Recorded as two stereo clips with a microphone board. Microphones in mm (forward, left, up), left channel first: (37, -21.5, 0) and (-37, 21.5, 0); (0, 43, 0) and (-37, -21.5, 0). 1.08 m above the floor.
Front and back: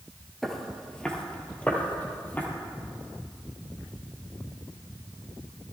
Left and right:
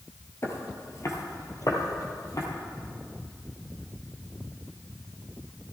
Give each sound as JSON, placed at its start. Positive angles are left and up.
{"t": 0.4, "sound": "footsteps", "azimuth_deg": 55, "distance_m": 1.3}